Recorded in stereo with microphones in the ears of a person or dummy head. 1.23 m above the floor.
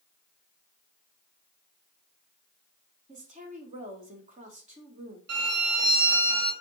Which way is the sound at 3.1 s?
35° right (ahead or behind).